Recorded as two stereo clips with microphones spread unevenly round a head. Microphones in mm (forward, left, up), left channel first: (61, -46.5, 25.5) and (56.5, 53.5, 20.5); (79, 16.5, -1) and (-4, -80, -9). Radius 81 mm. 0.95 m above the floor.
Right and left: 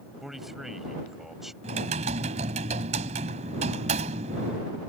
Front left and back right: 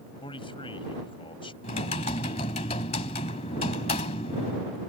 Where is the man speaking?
5° left.